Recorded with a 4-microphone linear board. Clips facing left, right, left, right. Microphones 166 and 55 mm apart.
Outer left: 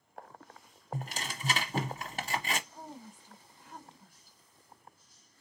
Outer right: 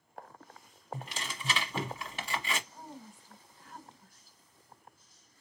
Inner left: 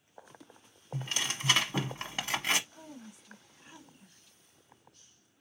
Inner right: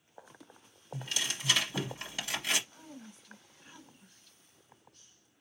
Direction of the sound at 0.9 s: 40° left (ahead or behind).